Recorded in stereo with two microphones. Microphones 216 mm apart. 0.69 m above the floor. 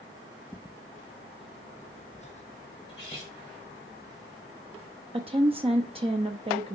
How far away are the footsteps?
About 0.7 m.